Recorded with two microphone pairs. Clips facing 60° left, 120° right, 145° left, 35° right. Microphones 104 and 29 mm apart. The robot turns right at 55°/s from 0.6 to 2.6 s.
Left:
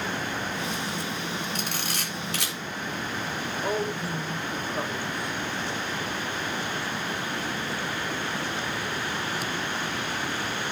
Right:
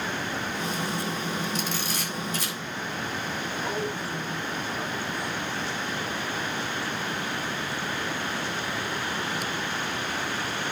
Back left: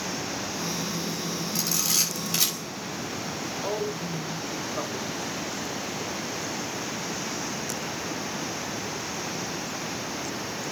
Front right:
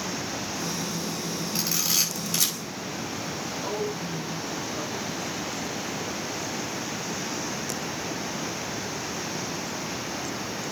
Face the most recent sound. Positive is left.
turn(degrees=100)